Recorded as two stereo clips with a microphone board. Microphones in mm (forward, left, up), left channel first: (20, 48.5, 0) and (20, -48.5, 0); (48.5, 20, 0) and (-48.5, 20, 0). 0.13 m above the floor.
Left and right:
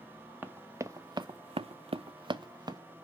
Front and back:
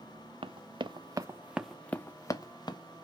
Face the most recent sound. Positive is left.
turn(degrees=-40)